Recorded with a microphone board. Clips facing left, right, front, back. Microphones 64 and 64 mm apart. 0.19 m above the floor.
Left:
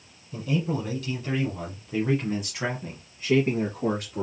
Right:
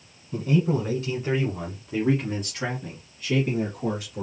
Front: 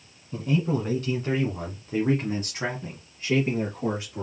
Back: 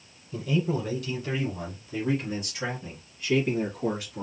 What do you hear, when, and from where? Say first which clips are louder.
0.3 s a man speaking: right 4 dB, front 2 dB; 50° right, 1.9 m; by 4.2 s 60° left, 1.8 m